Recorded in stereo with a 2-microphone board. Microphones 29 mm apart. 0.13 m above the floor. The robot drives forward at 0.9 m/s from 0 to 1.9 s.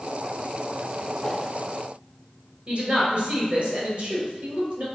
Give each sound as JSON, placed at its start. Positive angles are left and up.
{"t": 1.2, "sound": "a whoosh", "side_deg": 25, "distance_m": 0.6}
{"t": 2.7, "sound": "a woman speaking", "side_deg": -45, "distance_m": 1.9}